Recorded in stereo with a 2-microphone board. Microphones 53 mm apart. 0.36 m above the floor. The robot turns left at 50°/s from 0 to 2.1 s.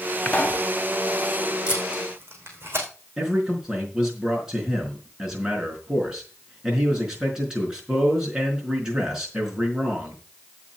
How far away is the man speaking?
About 4.5 m.